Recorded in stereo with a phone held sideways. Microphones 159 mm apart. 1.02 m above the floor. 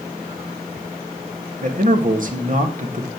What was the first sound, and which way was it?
A man speaking, 55° right (ahead or behind).